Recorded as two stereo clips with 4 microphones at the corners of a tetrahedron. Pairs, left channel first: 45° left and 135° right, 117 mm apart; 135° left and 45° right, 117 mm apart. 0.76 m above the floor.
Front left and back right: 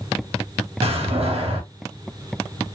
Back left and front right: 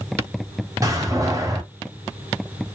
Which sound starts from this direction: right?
A door slam, at 0.8 s.